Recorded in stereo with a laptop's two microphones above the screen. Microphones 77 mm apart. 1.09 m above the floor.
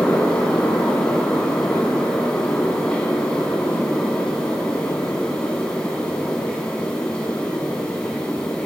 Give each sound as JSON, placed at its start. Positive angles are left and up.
{"t": 0.0, "sound": "a fan", "side_deg": 15, "distance_m": 1.0}